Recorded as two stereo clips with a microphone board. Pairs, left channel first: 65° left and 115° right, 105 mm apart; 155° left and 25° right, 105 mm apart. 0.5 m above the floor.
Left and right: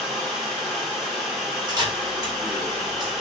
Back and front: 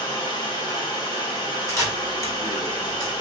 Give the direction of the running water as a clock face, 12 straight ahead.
7 o'clock.